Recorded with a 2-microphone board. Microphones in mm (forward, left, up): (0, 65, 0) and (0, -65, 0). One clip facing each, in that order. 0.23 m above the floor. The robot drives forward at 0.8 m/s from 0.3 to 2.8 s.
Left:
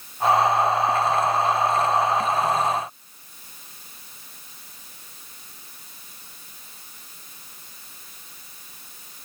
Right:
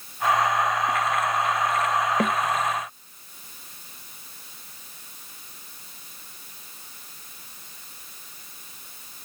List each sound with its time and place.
2.2 s a snare drum: 85° right